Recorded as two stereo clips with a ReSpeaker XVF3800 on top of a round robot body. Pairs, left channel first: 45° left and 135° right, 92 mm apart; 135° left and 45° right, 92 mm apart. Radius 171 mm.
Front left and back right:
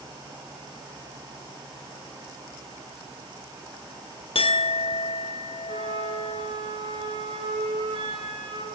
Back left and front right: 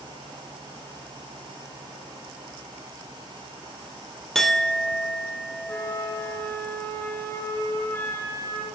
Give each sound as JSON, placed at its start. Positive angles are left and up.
{"t": 4.3, "sound": "a clink", "azimuth_deg": 50, "distance_m": 2.0}
{"t": 5.7, "sound": "a flute", "azimuth_deg": -155, "distance_m": 7.0}